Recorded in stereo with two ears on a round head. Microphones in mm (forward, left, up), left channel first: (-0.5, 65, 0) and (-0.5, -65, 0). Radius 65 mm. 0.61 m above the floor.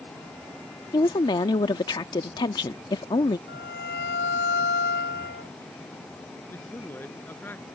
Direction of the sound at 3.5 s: 75° left (ahead or behind).